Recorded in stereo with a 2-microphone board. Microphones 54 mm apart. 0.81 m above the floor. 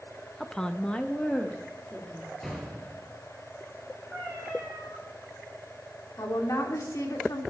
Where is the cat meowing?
10° left (ahead or behind), 8 m.